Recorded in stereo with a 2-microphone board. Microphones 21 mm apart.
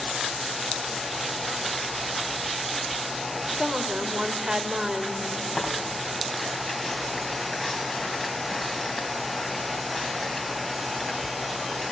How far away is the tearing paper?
About 2.5 m.